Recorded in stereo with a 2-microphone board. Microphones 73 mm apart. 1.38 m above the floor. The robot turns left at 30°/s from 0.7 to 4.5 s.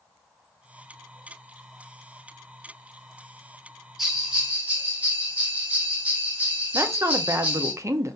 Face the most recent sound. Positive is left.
turn(degrees=-40)  # may be behind; listen again after turning